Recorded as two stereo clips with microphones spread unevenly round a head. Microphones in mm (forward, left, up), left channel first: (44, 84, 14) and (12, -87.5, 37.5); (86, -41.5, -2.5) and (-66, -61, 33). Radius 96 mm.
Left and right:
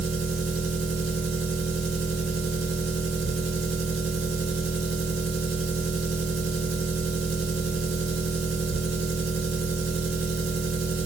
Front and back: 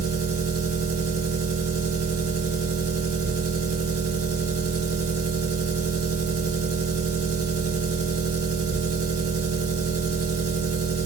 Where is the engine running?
160° right, 1.9 m.